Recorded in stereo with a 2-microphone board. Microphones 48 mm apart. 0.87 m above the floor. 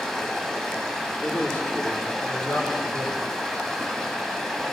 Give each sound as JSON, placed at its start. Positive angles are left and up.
{"t": 0.0, "sound": "running water", "side_deg": 10, "distance_m": 1.5}
{"t": 1.2, "sound": "a man speaking", "side_deg": 40, "distance_m": 2.0}